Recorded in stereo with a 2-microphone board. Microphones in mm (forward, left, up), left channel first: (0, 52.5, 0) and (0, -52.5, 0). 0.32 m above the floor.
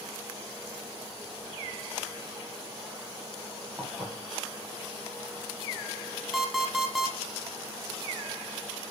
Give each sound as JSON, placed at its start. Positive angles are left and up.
{"t": 3.8, "sound": "dishes clattering", "side_deg": 0, "distance_m": 6.5}
{"t": 6.3, "sound": "an alarm clock", "side_deg": 0, "distance_m": 2.5}